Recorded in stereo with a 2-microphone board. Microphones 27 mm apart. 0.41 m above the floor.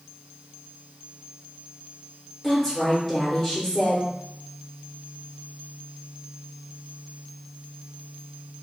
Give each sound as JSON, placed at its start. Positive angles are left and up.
{"t": 2.4, "sound": "a woman speaking", "side_deg": 5, "distance_m": 0.8}